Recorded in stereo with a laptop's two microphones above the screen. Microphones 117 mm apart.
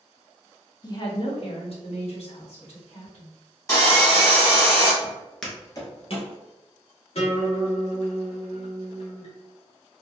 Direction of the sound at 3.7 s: 30° left (ahead or behind).